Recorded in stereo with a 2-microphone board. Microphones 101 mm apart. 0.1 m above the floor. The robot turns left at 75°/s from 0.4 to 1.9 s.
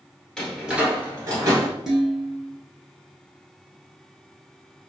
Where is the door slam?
5° left (ahead or behind), 1.2 m; by 1.7 s 35° right (ahead or behind), 1.2 m.